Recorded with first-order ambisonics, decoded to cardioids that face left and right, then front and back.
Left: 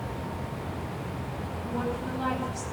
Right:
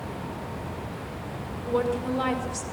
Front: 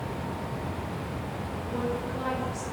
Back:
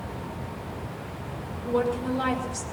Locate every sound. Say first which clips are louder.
1.6 s a woman speaking: right 7 dB, back 7 dB; 125° right, 5.5 m